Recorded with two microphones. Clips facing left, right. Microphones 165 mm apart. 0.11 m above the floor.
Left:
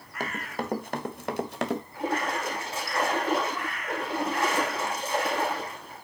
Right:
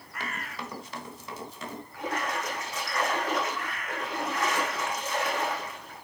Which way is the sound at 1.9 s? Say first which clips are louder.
Right 1 dB; 30° left (ahead or behind).